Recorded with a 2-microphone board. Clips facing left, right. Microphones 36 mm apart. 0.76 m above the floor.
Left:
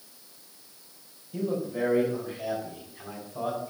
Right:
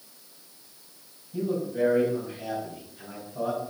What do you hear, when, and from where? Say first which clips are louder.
1.3 s a man speaking: right 2 dB; 65° left (ahead or behind), 5 m; by 3.7 s 70° left (ahead or behind), 7.5 m